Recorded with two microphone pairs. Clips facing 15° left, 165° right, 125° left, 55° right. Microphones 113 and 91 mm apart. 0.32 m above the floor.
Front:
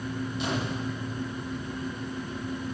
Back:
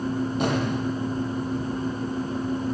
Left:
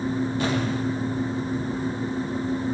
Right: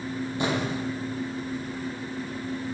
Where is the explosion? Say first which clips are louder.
Back 5 dB, left 3 dB; 125° right, 7.5 m.